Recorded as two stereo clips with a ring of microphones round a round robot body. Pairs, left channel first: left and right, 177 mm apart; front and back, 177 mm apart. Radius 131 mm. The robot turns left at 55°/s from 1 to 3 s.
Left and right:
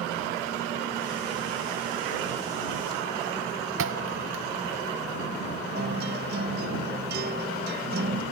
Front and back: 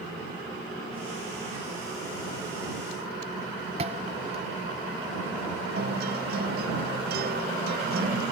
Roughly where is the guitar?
Behind right.